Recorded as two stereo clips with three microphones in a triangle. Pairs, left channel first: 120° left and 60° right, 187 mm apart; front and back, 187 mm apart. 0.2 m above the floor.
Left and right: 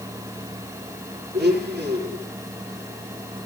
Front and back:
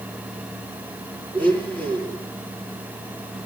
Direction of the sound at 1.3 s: 80° right.